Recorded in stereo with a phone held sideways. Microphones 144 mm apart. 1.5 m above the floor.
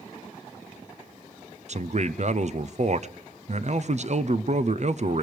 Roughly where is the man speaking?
Right.